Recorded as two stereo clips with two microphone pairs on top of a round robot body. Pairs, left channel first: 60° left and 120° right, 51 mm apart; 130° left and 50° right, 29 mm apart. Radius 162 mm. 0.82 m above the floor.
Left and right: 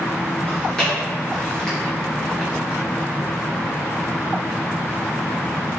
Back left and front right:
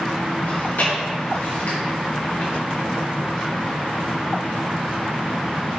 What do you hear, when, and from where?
0.5 s chewing: 135° left, 3 m